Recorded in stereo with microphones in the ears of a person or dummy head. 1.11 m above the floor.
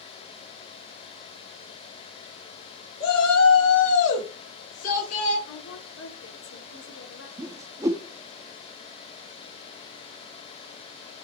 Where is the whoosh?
10° right (ahead or behind), 0.5 m.